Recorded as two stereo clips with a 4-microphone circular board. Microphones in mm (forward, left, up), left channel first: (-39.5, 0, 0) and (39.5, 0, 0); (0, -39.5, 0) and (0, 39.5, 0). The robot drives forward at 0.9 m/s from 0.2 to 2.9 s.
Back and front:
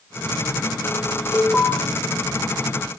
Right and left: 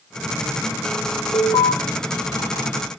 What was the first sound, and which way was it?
An alarm, 95° right.